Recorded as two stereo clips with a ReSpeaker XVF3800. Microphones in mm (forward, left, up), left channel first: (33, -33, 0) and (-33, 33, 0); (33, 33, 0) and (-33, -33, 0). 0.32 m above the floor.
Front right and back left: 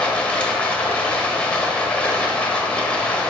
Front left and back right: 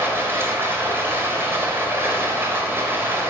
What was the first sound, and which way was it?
Running water, 110° right.